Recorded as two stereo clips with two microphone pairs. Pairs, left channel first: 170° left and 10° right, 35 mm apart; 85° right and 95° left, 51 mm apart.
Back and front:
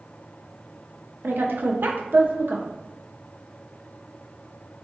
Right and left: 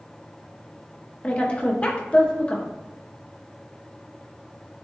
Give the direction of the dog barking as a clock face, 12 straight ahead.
I don't hear a dog barking.